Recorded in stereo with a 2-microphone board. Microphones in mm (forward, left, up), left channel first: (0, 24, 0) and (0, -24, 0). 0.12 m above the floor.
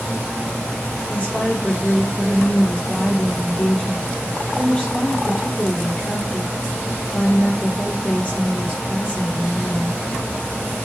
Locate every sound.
1.1 s a woman speaking: 30° left (ahead or behind), 3.5 m